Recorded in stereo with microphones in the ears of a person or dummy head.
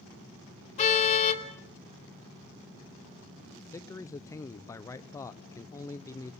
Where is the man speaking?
15° left (ahead or behind), 0.6 m.